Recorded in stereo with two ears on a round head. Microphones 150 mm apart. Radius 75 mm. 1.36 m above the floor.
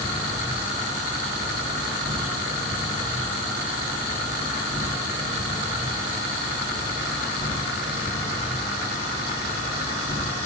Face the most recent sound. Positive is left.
turn(degrees=-20)  # may be behind; listen again after turning